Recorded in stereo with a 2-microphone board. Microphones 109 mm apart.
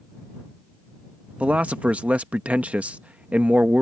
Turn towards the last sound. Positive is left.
turn(degrees=-10)  # may be behind; listen again after turning